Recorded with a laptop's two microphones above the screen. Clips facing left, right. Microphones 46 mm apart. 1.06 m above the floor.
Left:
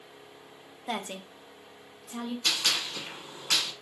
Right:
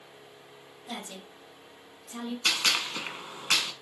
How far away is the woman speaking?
About 0.8 m.